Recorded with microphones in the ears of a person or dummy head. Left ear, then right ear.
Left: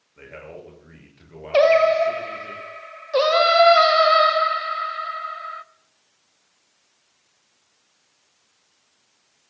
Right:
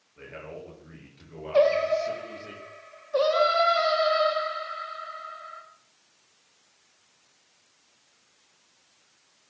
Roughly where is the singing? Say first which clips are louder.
Left 7 dB; left.